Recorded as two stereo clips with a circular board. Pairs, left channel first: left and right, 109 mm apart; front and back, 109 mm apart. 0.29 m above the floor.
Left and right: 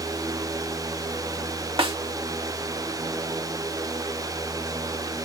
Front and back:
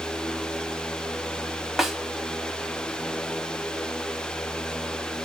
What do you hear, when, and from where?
1.8 s a snare drum: 90° right, 0.9 m